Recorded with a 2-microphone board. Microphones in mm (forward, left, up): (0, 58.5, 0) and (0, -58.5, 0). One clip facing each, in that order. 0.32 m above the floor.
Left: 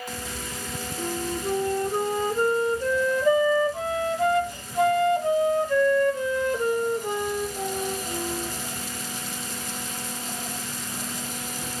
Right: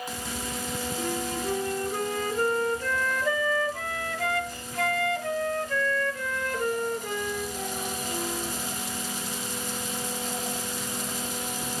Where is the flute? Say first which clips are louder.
Left 3 dB; 20° left (ahead or behind), 1.0 m.